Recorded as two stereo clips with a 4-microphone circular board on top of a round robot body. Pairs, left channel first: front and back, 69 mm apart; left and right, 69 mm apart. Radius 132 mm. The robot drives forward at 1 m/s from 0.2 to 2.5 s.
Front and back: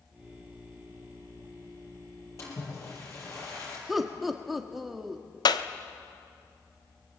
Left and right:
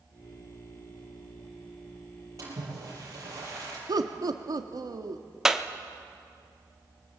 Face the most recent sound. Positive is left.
turn(degrees=-10)